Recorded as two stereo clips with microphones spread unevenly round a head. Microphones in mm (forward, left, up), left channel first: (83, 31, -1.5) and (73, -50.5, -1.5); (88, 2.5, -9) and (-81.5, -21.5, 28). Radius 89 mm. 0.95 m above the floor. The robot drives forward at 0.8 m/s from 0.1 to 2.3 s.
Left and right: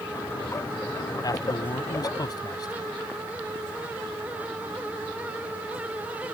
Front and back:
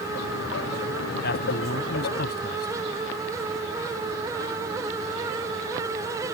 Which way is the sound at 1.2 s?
40° left.